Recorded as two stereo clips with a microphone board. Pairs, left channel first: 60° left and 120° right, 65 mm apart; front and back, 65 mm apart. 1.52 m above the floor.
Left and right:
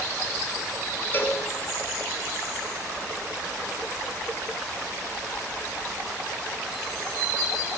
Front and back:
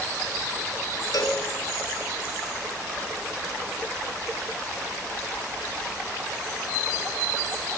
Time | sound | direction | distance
1.1 | a cowbell | straight ahead | 6 m